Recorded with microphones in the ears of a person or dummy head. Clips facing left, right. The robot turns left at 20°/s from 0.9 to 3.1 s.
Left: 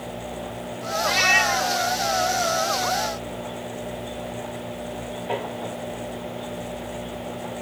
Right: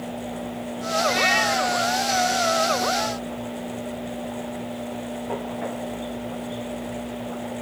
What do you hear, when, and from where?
1.0 s a cat meowing: 75° left (ahead or behind), 2.5 m; by 1.8 s 60° left (ahead or behind), 2.5 m